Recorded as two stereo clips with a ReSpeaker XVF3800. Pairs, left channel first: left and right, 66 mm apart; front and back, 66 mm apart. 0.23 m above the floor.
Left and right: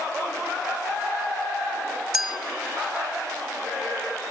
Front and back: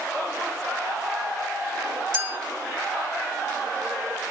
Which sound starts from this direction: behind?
A clink, at 2.1 s.